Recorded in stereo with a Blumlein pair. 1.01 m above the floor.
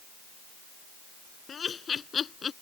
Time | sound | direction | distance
1.5 | laughter | 20° left | ?